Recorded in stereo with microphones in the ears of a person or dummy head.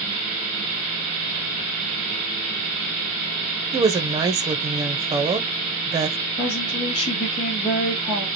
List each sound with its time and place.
3.7 s a woman speaking: 20° right (ahead or behind), 0.9 m
6.4 s a woman speaking: 35° left (ahead or behind), 3 m